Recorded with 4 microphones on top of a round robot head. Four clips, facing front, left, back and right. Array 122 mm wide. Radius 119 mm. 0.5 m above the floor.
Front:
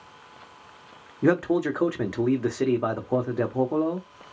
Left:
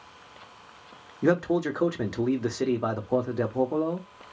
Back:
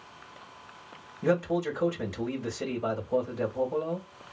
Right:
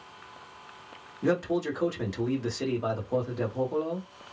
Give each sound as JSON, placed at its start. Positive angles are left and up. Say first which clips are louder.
{"t": 1.2, "sound": "a man speaking", "louder": "left 3 dB, front 5 dB", "azimuth_deg": 25, "distance_m": 1.6}